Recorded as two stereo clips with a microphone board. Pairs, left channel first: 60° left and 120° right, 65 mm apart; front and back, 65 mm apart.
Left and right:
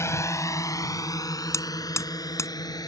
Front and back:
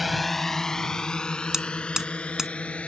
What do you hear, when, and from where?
0.0 s a drone: 95° left; by 2.9 s 70° left
1.5 s hammering: 100° left